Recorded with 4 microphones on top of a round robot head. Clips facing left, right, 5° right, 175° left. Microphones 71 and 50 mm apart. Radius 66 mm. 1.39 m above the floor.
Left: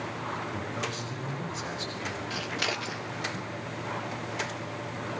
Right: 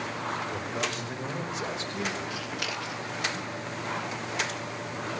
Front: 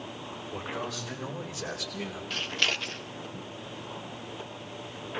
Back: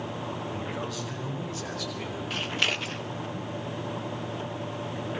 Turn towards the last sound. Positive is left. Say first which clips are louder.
# left 2 dB, back 1 dB
turn(degrees=105)